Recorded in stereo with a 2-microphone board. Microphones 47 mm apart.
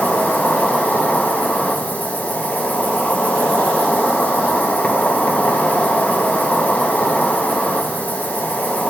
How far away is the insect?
About 0.8 m.